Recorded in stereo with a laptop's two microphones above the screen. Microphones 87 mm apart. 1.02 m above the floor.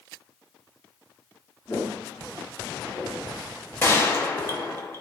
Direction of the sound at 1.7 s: 20° left (ahead or behind).